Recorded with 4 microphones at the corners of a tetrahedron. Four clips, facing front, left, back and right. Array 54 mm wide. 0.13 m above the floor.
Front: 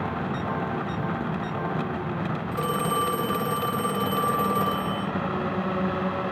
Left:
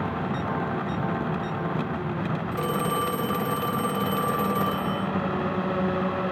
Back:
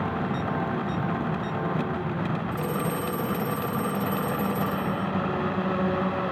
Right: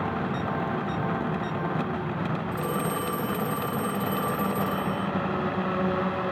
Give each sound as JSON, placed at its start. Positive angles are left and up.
{"t": 2.5, "sound": "a phone ringing", "azimuth_deg": 40, "distance_m": 2.0}